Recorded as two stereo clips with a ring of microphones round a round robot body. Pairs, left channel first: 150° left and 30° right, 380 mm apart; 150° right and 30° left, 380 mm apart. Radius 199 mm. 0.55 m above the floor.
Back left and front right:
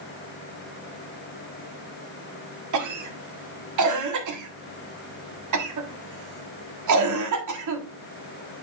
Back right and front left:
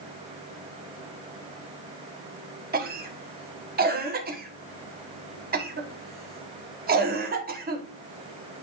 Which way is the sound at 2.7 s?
25° right.